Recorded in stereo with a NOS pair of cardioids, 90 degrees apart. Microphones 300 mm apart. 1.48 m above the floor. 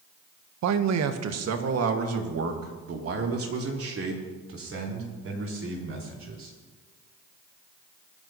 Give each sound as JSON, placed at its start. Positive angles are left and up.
{"t": 0.6, "sound": "a man speaking", "azimuth_deg": -65, "distance_m": 1.2}